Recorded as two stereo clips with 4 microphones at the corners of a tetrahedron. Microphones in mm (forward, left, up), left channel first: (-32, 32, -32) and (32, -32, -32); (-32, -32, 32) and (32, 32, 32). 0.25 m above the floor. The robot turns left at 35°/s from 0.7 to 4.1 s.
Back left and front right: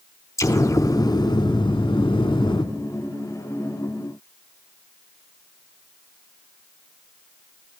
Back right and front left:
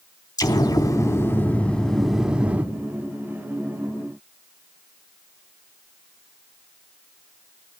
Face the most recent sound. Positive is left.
turn(degrees=65)